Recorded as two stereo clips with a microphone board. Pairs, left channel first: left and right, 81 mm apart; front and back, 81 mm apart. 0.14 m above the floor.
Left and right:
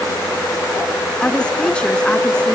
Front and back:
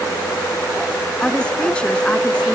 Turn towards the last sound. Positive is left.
turn(degrees=40)